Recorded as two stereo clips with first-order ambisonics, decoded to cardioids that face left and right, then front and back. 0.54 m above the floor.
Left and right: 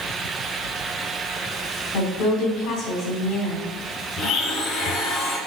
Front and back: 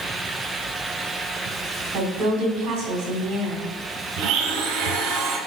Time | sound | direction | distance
1.9 | a woman speaking | 125° left | 3 m
4.2 | a blender | 145° left | 2.5 m